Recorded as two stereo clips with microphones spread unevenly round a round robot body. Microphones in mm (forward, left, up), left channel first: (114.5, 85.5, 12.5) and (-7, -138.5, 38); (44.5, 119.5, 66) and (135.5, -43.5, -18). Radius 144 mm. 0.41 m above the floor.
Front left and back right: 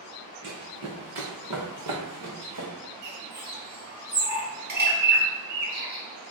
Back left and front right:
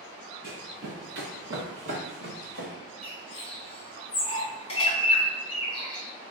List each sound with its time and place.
0.4 s running footsteps: 100° right, 1.2 m
3.0 s a bird: 160° right, 1.3 m